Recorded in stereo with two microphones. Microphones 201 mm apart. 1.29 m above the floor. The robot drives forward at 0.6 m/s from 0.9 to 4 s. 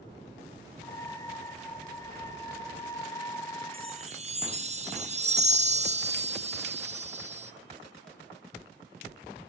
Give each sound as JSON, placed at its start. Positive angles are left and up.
{"t": 3.7, "sound": "a chime", "side_deg": -30, "distance_m": 0.8}